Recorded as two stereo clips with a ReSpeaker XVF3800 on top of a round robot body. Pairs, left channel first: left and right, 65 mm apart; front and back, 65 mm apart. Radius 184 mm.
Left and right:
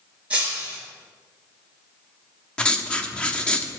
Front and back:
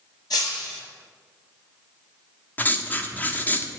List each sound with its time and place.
0.3 s breaking glass: 15° right, 3.5 m
2.6 s writing: 30° left, 1.2 m